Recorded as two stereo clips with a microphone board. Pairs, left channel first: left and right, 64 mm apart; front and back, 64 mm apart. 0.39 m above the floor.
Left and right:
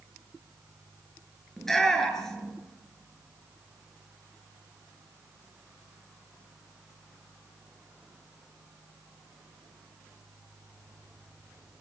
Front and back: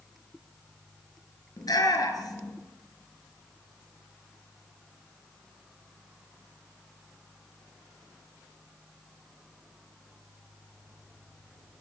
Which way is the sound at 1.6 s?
5° left.